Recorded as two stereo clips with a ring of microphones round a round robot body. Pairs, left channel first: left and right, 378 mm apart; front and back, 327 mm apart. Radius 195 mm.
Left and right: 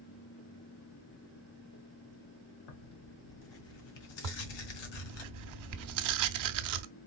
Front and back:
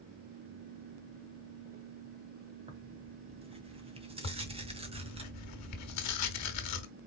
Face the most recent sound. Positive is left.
turn(degrees=-45)